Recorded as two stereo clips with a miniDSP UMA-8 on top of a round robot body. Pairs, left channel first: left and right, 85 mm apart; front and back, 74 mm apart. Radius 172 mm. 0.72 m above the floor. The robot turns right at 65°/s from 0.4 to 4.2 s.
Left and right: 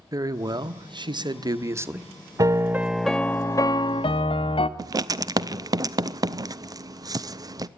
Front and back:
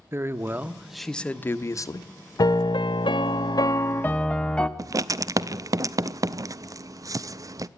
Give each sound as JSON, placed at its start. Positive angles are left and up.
{"t": 0.1, "sound": "a man speaking", "azimuth_deg": -125, "distance_m": 1.1}
{"t": 2.4, "sound": "a piano", "azimuth_deg": -40, "distance_m": 0.7}
{"t": 4.8, "sound": "writing", "azimuth_deg": -135, "distance_m": 0.5}